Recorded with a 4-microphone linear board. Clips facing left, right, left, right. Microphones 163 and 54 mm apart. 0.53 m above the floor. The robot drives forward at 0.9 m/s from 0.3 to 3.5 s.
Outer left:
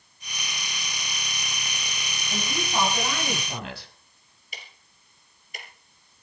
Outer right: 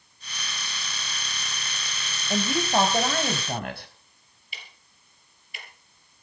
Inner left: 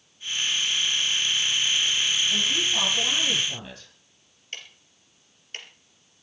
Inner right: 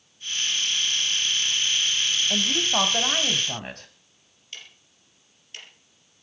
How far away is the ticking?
About 4 m.